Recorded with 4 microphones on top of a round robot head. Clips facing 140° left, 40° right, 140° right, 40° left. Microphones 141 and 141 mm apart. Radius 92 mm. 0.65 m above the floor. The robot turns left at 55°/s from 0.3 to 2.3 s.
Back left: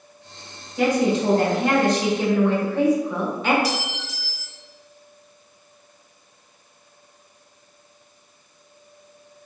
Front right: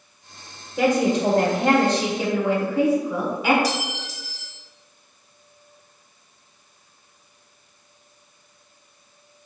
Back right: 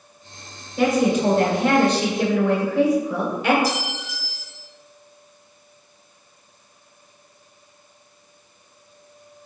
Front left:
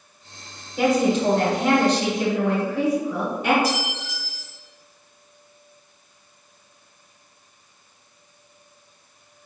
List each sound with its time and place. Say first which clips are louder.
0.8 s a woman speaking: even, back right 1 dB; 40° right, 1.8 m; by 3.5 s 125° right, 1.8 m
3.6 s a clink: front right 1 dB, even; 10° left, 1.4 m